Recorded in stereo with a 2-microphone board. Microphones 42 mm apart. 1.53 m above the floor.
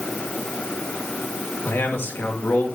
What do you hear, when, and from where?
1.6 s a man speaking: 60° left (ahead or behind), 2 m